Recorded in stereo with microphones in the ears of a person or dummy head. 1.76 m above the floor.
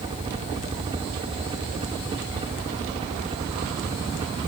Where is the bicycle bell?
I don't hear a bicycle bell.